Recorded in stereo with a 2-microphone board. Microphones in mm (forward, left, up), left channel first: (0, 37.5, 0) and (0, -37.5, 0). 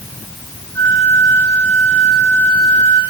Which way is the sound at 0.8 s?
40° left (ahead or behind).